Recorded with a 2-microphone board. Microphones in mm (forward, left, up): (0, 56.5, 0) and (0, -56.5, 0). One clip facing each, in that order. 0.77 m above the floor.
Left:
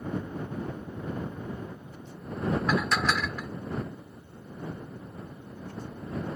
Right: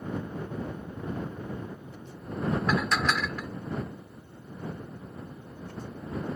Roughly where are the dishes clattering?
Centre.